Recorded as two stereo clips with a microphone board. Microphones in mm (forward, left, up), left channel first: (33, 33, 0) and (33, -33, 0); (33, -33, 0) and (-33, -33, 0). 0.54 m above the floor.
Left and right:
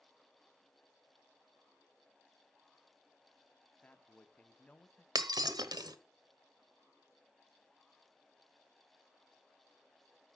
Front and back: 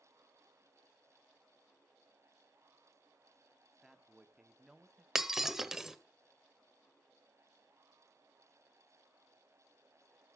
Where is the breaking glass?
95° right, 0.8 m.